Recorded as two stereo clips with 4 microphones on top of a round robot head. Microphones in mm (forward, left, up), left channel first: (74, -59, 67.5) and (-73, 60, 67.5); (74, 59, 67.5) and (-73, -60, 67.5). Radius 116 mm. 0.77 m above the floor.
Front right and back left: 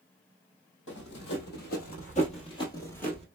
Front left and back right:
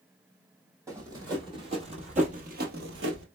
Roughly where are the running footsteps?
Ahead right.